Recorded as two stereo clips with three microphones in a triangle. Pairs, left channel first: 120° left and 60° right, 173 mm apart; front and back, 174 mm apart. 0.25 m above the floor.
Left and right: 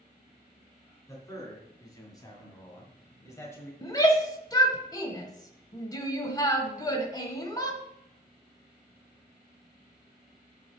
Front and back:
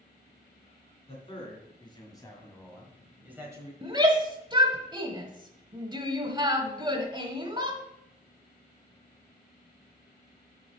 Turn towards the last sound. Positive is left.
turn(degrees=160)